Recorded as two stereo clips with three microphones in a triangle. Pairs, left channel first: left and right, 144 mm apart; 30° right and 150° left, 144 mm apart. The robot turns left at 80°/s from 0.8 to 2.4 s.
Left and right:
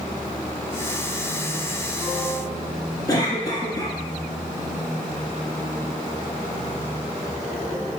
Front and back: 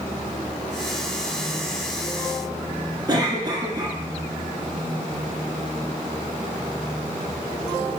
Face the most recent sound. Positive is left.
turn(degrees=125)